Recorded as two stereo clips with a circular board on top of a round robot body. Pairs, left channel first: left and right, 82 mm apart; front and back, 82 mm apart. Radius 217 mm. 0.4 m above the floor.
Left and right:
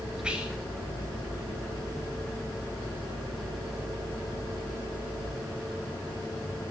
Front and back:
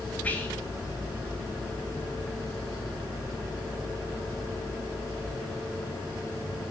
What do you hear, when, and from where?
0.2 s whispering: 30° right, 1.5 m